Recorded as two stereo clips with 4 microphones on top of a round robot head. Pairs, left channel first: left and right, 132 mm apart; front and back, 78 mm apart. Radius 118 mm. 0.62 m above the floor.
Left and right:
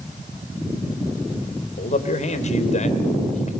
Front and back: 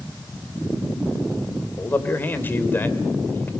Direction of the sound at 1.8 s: 65° left.